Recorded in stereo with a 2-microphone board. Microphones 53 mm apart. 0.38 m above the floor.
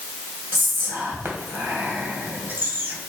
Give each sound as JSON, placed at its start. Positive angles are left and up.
{"t": 0.5, "sound": "whispering", "side_deg": -45, "distance_m": 2.0}